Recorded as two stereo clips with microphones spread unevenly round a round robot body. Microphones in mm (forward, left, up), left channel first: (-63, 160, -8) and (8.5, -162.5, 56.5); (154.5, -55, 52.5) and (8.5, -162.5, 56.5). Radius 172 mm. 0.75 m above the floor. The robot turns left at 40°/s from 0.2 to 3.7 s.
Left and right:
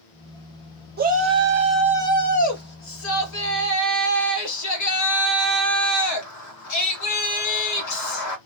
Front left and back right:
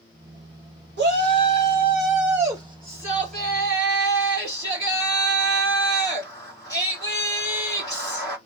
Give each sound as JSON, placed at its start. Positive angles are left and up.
{"t": 1.0, "sound": "a shout", "azimuth_deg": -145, "distance_m": 1.7}